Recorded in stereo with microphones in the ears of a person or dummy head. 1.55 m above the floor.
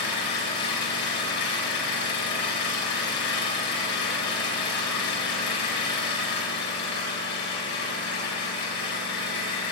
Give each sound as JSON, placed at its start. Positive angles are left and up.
{"t": 0.0, "sound": "an engine running", "side_deg": 60, "distance_m": 6.5}